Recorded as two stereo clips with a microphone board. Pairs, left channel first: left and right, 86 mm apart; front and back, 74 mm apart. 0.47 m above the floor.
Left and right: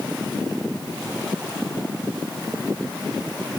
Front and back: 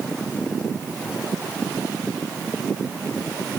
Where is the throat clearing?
No throat clearing in this recording.